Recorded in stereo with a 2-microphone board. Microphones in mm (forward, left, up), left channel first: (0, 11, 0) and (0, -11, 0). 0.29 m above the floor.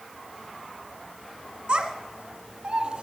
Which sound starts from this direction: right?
A child speaking, at 1.7 s.